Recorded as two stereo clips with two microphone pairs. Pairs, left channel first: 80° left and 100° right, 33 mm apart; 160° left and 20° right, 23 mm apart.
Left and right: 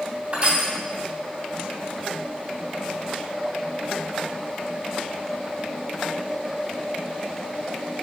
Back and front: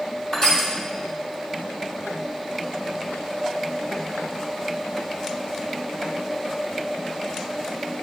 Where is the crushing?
140° right, 2.5 m.